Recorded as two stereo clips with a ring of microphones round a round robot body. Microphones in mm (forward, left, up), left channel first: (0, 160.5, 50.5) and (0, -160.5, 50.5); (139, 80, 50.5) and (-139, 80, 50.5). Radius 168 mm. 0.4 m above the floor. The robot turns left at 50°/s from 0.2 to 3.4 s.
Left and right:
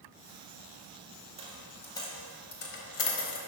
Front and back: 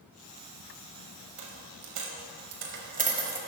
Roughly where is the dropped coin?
Behind.